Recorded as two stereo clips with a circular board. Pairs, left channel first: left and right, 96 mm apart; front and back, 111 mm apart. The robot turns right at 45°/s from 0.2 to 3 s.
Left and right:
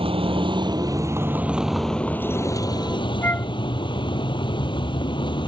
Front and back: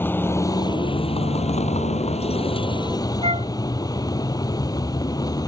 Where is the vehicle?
70° right; by 5.5 s 55° left.